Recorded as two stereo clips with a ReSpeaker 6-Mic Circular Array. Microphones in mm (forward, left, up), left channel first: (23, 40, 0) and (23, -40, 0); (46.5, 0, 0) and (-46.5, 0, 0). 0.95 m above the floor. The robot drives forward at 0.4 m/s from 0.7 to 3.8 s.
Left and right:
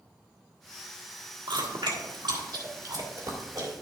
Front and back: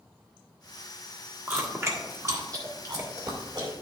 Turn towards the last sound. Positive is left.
turn(degrees=-135)